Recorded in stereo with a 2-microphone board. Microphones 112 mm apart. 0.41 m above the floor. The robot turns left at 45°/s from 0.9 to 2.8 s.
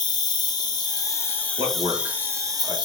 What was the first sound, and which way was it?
An insect, 40° left.